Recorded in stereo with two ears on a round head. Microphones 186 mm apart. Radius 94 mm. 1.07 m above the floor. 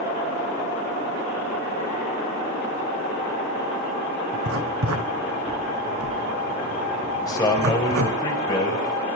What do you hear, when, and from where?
4.3 s writing: 75° right (ahead or behind), 3 m
7.2 s a man speaking: 20° left (ahead or behind), 7 m